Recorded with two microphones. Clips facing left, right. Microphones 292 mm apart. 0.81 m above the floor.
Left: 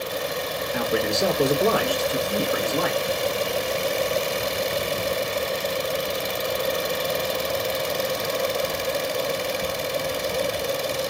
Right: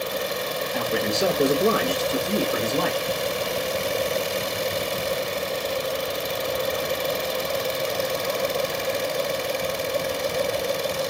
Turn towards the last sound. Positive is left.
turn(degrees=-40)  # may be behind; listen again after turning